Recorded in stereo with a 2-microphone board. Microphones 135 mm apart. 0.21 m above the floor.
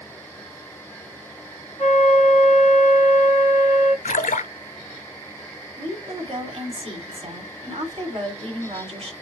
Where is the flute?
45° left (ahead or behind), 3.5 m.